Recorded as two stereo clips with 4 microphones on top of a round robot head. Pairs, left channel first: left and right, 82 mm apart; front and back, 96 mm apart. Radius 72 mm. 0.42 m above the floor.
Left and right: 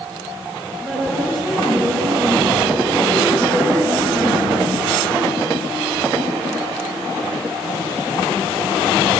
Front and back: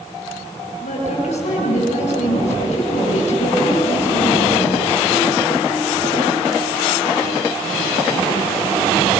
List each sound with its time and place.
0.8 s a woman speaking: 5° left, 7 m